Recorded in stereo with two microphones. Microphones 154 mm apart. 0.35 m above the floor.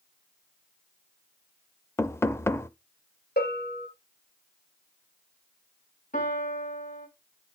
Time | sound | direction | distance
2.0 | knocking | 15° left (ahead or behind) | 0.5 m
3.4 | a bell | 75° left (ahead or behind) | 1.5 m
6.1 | a piano | 60° left (ahead or behind) | 2.5 m